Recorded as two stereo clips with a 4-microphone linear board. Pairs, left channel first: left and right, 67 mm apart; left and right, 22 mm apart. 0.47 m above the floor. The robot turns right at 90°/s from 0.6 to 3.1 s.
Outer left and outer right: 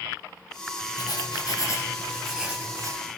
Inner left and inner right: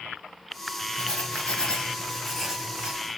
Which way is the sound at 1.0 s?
65° left.